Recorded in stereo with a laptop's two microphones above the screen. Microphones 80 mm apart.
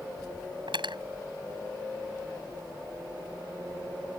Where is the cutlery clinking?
85° right.